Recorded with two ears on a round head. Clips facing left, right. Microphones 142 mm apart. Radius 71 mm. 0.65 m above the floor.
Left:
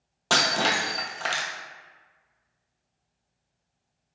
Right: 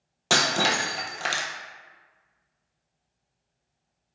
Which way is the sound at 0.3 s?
10° right (ahead or behind).